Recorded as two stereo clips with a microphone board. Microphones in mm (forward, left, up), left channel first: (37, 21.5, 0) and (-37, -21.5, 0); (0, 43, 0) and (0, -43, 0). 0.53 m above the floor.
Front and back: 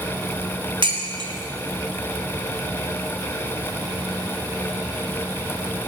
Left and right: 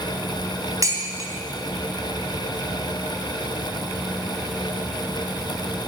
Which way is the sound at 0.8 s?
135° right.